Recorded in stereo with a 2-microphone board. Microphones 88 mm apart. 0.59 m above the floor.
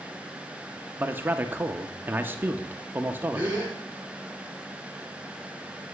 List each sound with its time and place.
1.0 s a man speaking: 25° right (ahead or behind), 0.7 m
3.3 s a gasp: 20° right (ahead or behind), 4 m